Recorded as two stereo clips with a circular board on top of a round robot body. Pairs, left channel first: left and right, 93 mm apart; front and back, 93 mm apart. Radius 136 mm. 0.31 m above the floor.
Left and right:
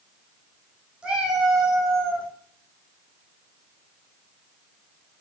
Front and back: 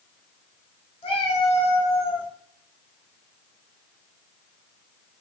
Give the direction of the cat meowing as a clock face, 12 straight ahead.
12 o'clock.